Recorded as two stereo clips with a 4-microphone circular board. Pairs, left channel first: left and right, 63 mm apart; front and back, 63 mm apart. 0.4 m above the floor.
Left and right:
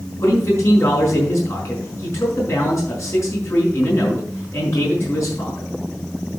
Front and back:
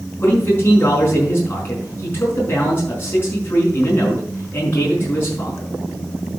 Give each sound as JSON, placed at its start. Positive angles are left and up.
{"t": 0.2, "sound": "a man speaking", "azimuth_deg": 50, "distance_m": 5.5}